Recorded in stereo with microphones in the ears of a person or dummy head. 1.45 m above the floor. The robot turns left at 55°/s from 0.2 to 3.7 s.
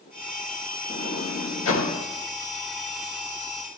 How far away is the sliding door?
About 2.5 m.